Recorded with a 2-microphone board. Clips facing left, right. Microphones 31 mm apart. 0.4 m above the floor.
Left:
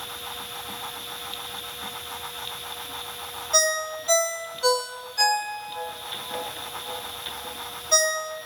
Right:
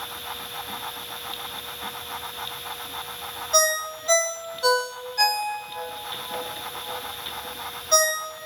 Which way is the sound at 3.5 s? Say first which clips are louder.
Right 1 dB; centre (ahead or behind).